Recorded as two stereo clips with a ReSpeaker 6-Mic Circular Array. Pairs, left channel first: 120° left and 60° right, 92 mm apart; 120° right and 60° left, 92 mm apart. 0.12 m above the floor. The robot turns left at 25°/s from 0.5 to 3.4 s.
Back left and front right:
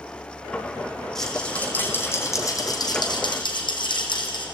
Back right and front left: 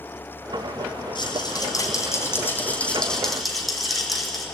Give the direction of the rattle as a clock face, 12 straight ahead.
5 o'clock.